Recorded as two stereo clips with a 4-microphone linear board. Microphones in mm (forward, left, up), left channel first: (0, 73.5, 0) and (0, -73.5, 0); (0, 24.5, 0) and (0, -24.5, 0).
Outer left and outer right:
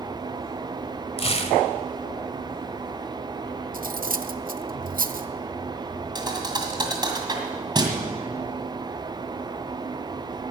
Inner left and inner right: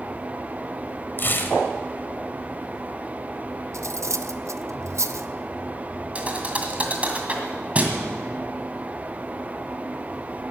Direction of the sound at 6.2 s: 30° right (ahead or behind).